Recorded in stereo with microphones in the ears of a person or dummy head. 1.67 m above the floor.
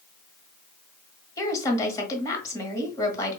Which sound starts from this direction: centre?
A woman speaking, at 1.4 s.